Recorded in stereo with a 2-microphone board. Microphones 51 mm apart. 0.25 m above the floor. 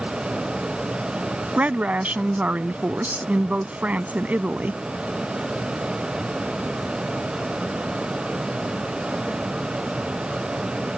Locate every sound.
1.6 s a woman speaking: 30° right (ahead or behind)